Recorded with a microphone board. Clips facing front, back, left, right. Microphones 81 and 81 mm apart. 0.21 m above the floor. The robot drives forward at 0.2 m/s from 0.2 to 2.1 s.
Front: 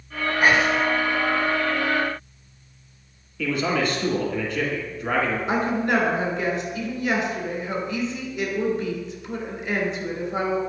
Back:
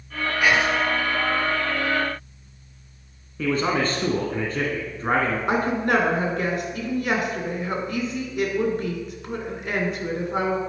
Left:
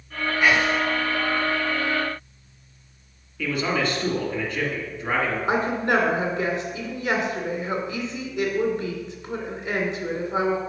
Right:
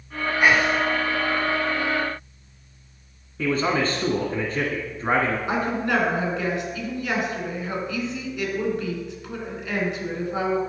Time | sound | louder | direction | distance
0.4 | whispering | front 1 dB, right 1 dB | 30° right | 1.6 m
3.4 | a man speaking | back 1 dB, right 2 dB | 135° right | 1.7 m
5.5 | a woman speaking | back 2 dB, left 2 dB | 150° left | 2.5 m